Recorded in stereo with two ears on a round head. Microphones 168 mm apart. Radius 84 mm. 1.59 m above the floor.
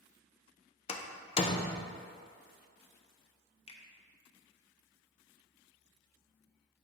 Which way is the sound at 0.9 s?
30° left (ahead or behind).